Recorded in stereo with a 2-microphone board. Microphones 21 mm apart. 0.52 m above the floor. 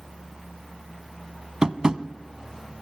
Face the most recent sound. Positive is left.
turn(degrees=-35)  # may be behind; listen again after turning